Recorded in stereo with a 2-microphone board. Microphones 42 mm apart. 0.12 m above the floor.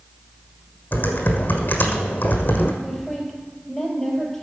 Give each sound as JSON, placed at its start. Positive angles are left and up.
{"t": 0.9, "sound": "typing on a keyboard", "side_deg": 45, "distance_m": 1.5}
{"t": 2.8, "sound": "a woman speaking", "side_deg": 0, "distance_m": 3.5}